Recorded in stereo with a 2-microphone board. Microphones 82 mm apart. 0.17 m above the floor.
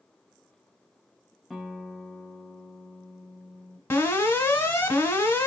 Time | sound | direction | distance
1.5 | a guitar | centre (ahead or behind) | 0.7 m
3.9 | an alarm | 25° left (ahead or behind) | 1.4 m